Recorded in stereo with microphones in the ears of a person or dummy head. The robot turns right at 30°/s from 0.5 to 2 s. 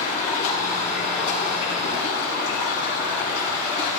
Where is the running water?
40° left, 5 m; by 4.0 s 85° left, 5 m.